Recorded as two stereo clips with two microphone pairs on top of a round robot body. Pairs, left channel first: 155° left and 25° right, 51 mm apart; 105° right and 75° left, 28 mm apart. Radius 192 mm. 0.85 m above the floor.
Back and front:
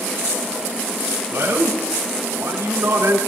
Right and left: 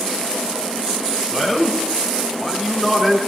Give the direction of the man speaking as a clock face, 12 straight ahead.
12 o'clock.